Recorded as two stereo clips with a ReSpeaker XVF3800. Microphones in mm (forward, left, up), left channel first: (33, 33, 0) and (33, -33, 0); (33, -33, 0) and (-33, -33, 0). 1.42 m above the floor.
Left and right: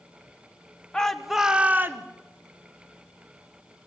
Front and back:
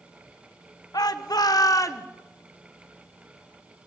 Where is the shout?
10° left, 1.5 m; by 2.0 s 45° right, 1.2 m.